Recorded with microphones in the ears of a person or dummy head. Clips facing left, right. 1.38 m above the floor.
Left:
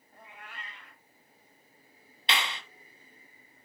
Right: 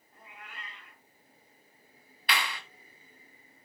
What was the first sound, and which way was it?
A cat meowing, 35° left (ahead or behind).